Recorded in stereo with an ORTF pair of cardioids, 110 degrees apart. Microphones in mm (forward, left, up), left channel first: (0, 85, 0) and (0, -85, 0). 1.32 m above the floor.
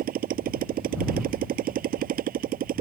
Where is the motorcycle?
60° right.